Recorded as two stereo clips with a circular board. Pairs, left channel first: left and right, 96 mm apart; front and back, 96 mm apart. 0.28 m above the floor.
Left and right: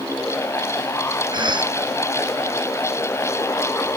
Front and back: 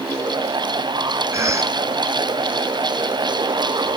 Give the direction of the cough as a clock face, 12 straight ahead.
4 o'clock.